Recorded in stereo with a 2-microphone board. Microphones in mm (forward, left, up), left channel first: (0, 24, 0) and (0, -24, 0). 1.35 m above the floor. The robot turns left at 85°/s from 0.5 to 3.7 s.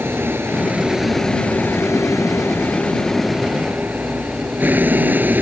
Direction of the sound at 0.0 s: 130° right.